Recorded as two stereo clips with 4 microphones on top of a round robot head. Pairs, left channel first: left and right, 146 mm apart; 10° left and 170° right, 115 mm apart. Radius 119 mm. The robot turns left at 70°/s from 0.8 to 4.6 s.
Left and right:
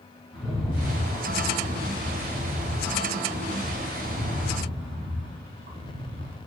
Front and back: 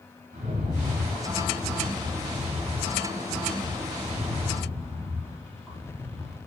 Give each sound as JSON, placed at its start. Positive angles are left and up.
{"t": 0.3, "sound": "a rattle", "azimuth_deg": 180, "distance_m": 3.0}